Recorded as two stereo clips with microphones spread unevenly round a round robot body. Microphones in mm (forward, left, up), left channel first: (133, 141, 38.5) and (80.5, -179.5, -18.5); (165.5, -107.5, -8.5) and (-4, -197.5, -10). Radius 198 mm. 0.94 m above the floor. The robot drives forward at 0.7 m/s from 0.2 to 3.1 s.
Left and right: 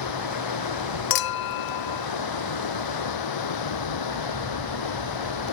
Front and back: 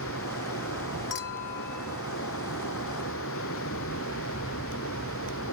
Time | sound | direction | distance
0.0 | running water | 70° left | ?
1.1 | a clink | 75° left | ?